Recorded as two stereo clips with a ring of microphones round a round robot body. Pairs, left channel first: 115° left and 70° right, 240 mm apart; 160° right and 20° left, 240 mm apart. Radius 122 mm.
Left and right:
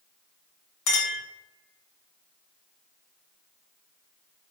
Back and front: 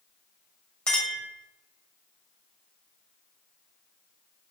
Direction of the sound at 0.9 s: 115° left.